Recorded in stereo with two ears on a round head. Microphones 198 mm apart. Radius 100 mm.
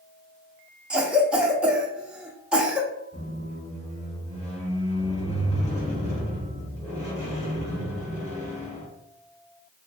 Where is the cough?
5° right (ahead or behind), 0.5 m.